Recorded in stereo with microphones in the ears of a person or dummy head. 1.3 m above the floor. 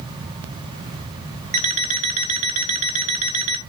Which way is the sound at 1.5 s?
35° right (ahead or behind).